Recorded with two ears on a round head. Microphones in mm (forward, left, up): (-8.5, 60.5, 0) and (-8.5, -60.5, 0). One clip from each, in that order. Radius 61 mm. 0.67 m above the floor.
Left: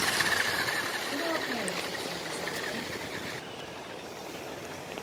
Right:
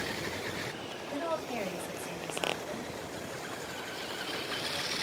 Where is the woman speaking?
75° right (ahead or behind), 2.5 m.